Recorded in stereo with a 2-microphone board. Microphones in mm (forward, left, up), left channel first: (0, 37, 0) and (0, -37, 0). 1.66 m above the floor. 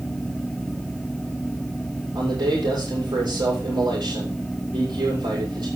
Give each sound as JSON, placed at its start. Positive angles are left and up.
{"t": 2.1, "sound": "a man speaking", "side_deg": -85, "distance_m": 7.0}